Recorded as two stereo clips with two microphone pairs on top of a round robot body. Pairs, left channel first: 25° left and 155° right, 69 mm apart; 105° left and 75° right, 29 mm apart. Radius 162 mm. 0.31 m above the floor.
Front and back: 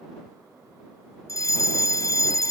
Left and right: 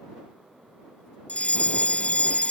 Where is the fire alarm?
60° left.